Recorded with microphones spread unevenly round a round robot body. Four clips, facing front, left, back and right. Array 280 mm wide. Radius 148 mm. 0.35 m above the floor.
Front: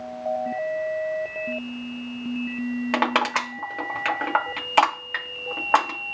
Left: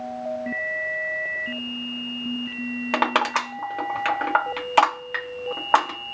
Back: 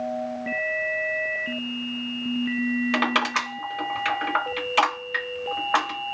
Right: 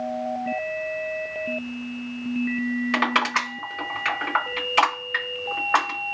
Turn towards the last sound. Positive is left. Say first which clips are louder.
# left 4 dB, front 1 dB
turn(degrees=50)